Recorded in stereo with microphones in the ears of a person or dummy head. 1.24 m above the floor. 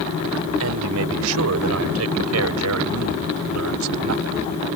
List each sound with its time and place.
0.6 s a man speaking: 80° right; by 4.5 s 85° right